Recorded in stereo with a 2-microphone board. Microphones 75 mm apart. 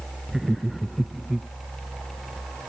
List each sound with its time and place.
0.3 s laughter: centre (ahead or behind)